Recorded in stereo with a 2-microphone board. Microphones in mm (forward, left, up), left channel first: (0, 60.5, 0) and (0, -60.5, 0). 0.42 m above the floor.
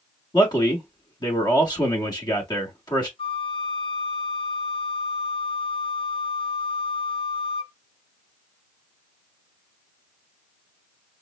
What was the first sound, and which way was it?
A man speaking, 35° left (ahead or behind).